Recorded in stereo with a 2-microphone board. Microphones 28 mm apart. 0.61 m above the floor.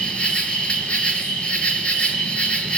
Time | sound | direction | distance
0.0 | an insect | 35° left (ahead or behind) | 3 m